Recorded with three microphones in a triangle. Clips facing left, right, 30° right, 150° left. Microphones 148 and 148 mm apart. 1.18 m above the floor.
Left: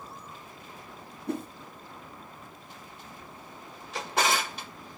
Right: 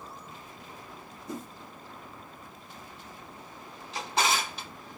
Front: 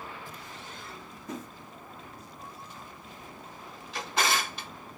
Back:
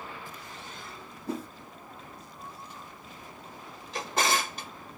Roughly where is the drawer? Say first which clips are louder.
Left 1 dB, back 1 dB; behind left.